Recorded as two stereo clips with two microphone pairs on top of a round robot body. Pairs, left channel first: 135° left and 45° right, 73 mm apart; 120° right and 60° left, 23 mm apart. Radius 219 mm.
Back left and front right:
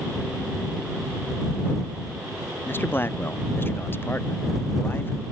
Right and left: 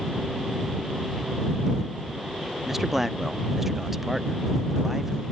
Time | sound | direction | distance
2.6 | a man speaking | 135° left | ?